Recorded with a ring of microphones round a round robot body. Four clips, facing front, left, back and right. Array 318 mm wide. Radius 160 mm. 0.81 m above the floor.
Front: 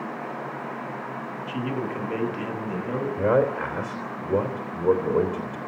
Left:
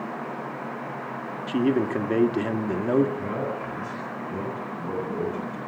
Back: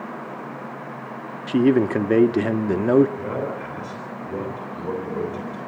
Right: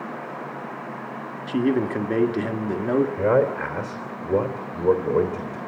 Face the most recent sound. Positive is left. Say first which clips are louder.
# right 9 dB, front 6 dB
turn(degrees=-60)